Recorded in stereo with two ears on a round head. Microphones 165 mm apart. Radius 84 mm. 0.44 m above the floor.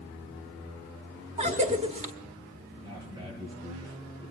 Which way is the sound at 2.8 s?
20° right (ahead or behind).